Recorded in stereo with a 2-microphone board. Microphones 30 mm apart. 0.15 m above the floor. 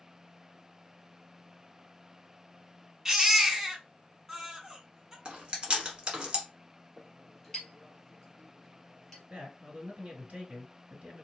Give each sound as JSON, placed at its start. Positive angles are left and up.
{"t": 3.0, "sound": "a baby crying", "side_deg": -15, "distance_m": 1.1}
{"t": 5.2, "sound": "chewing", "side_deg": -30, "distance_m": 1.3}
{"t": 7.0, "sound": "a clink", "side_deg": 15, "distance_m": 2.0}
{"t": 9.3, "sound": "a man speaking", "side_deg": -50, "distance_m": 1.7}